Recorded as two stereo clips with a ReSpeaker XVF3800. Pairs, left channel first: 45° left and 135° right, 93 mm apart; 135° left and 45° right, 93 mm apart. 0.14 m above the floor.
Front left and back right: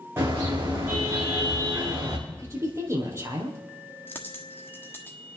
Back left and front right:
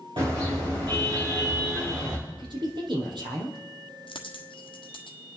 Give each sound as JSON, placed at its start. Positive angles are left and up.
{"t": 0.2, "sound": "a car horn", "azimuth_deg": -70, "distance_m": 5.0}
{"t": 2.3, "sound": "a woman speaking", "azimuth_deg": -80, "distance_m": 3.5}
{"t": 4.1, "sound": "a dropped coin", "azimuth_deg": 110, "distance_m": 1.3}